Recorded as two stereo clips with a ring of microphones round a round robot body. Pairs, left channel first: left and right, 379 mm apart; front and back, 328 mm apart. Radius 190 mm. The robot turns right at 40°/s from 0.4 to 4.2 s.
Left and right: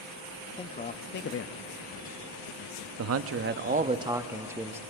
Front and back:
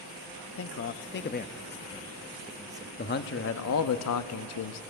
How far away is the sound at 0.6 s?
About 0.5 m.